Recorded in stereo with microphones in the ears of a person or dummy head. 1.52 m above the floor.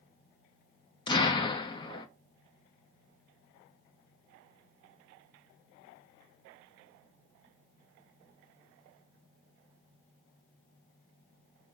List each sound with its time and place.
1.1 s an explosion: 30° left (ahead or behind), 0.7 m